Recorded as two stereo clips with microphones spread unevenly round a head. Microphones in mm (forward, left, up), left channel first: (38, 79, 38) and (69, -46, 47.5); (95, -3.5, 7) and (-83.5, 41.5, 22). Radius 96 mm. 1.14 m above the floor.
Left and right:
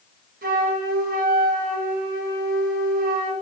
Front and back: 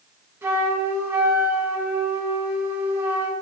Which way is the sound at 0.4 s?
115° right.